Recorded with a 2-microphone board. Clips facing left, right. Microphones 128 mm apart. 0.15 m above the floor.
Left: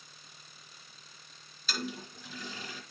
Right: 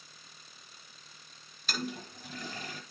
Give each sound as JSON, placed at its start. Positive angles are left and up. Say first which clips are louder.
{"t": 1.7, "sound": "a toilet flushing", "louder": "right 1 dB", "side_deg": -55, "distance_m": 1.4}